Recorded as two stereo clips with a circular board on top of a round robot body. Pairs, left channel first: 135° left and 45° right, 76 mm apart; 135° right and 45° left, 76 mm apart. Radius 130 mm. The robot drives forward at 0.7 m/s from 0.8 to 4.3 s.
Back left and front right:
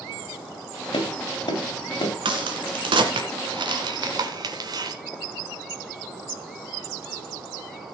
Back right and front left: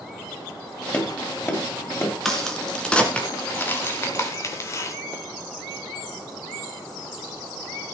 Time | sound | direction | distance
0.9 | tapping | 160° left | 3 m
2.2 | a crack | 50° right | 2.5 m